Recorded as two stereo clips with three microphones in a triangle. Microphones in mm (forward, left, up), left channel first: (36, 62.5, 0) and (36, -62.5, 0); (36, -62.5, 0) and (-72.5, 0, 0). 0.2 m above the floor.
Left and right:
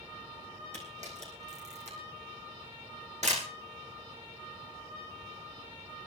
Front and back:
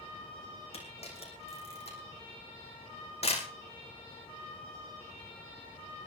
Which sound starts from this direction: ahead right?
A camera shutter, at 0.7 s.